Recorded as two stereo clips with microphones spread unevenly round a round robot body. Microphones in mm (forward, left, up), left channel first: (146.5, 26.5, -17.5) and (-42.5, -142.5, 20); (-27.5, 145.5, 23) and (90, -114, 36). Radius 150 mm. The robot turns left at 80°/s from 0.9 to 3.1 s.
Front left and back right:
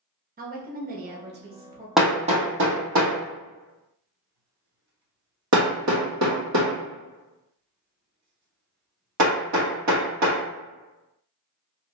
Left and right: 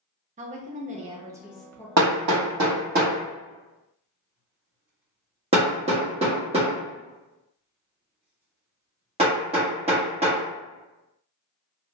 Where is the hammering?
45° right, 1.0 m; by 10.4 s 135° right, 1.0 m.